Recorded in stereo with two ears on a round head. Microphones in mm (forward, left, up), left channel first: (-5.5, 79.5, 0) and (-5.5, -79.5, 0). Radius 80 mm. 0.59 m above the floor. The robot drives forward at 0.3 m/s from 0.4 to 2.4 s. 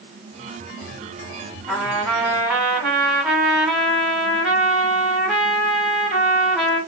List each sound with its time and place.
1.7 s a trumpet: centre (ahead or behind), 1.9 m